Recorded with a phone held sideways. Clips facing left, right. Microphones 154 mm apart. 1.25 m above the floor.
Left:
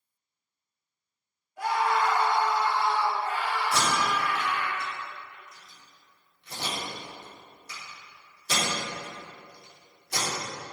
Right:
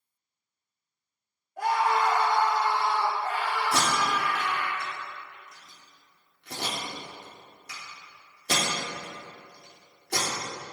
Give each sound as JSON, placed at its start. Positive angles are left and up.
{"t": 1.6, "sound": "a scream", "side_deg": -55, "distance_m": 3.0}
{"t": 3.7, "sound": "tape being pulled", "side_deg": -80, "distance_m": 3.5}